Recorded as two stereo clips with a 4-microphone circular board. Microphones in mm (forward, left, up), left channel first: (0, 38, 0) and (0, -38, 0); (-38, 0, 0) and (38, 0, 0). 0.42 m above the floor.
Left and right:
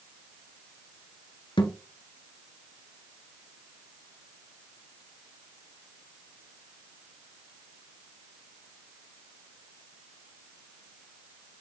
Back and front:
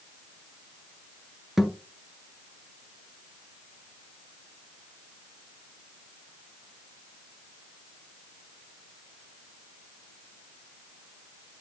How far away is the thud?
About 1.4 m.